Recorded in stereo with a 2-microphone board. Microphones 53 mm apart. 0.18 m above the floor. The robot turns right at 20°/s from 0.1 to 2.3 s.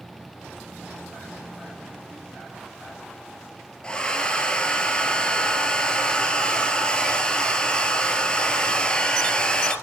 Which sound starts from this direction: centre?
A hair dryer, at 3.8 s.